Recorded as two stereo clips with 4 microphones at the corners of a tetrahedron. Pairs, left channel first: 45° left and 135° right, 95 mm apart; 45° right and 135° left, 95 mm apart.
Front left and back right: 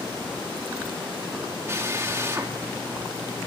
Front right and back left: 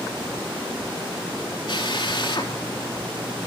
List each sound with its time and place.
1.7 s a drill: 75° right, 3 m